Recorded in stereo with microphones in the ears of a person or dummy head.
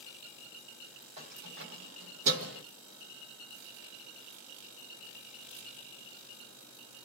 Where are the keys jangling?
45° right (ahead or behind), 1.4 m; by 2.6 s 60° right (ahead or behind), 1.3 m.